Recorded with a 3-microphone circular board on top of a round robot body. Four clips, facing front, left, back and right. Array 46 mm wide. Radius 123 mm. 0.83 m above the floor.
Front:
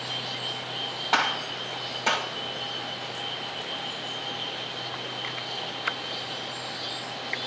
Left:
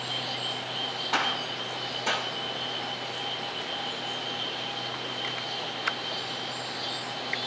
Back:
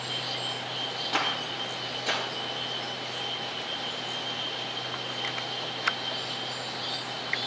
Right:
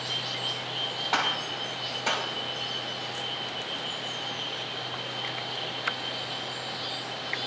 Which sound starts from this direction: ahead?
A gunshot, at 1.1 s.